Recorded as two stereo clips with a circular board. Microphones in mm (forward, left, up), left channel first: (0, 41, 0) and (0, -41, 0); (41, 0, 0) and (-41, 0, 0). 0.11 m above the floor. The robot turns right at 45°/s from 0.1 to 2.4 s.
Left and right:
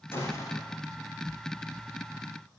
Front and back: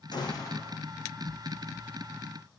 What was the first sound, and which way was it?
A gunshot, 30° left.